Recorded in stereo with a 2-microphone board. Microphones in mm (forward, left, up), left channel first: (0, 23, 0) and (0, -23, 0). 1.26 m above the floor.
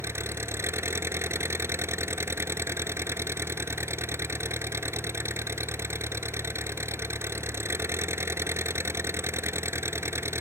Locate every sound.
0.0 s an engine running: 75° right (ahead or behind)